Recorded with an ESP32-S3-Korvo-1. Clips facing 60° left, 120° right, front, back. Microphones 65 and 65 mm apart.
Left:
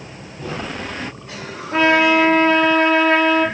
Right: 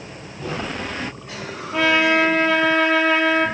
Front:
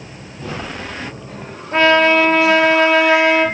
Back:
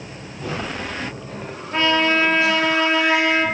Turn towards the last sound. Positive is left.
turn(degrees=55)